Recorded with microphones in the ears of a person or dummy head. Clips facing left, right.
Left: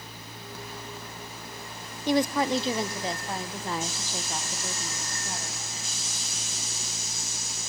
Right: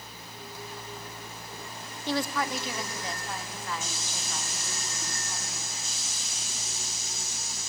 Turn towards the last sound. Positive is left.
turn(degrees=40)  # may be behind; listen again after turning